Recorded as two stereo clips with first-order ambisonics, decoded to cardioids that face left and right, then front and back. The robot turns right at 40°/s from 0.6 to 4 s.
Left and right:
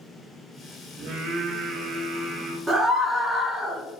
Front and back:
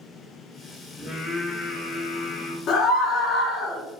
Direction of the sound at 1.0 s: 90° right.